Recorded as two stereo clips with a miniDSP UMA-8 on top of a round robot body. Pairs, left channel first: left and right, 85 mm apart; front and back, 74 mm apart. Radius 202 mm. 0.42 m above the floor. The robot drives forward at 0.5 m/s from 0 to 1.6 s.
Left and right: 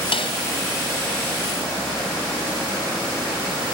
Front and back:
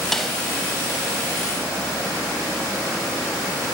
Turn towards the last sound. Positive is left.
turn(degrees=105)